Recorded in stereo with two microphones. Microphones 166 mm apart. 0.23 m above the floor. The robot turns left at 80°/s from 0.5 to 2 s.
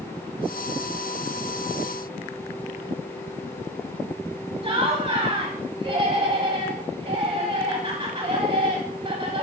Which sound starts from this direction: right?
Laughter, at 4.6 s.